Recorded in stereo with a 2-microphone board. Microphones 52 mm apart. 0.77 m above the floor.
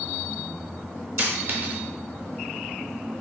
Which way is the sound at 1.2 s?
45° right (ahead or behind).